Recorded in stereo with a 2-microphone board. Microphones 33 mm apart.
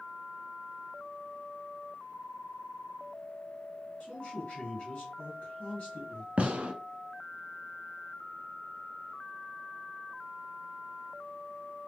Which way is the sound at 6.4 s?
45° right (ahead or behind).